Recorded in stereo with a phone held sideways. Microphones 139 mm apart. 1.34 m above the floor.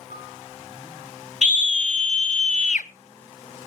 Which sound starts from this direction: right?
A piano, at 0.1 s.